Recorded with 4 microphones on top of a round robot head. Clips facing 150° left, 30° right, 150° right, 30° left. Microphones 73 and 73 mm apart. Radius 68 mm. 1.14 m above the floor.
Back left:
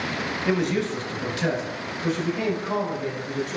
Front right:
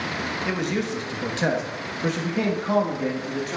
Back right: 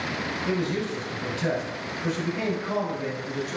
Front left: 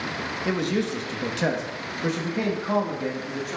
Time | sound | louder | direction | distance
0.5 | a man speaking | back left 4 dB, front left 3 dB | 60° left | 1.4 m